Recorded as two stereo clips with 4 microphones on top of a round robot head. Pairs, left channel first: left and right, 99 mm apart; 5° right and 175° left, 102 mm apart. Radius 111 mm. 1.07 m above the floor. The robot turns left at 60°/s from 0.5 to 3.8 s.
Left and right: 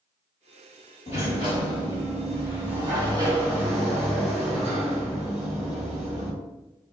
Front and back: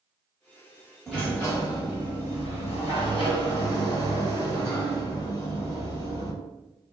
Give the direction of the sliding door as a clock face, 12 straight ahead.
9 o'clock.